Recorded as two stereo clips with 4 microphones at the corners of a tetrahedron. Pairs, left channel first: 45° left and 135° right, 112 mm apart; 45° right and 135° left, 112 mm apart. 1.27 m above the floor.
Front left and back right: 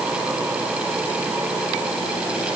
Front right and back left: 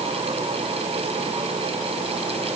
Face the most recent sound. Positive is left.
No sound to turn to.